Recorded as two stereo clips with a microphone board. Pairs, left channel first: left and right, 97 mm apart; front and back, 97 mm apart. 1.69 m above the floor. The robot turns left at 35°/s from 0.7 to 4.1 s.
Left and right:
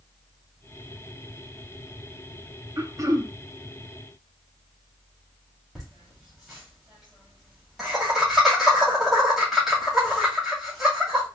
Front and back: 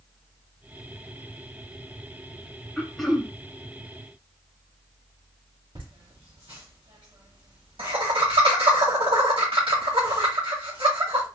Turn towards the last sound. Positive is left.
turn(degrees=180)